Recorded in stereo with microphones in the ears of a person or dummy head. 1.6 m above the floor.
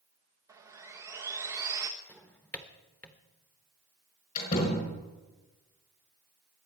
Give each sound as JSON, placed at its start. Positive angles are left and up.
{"t": 0.5, "sound": "sawing", "side_deg": -15, "distance_m": 1.1}
{"t": 2.1, "sound": "a drawer", "side_deg": 5, "distance_m": 1.1}
{"t": 4.3, "sound": "a door slam", "side_deg": 45, "distance_m": 5.5}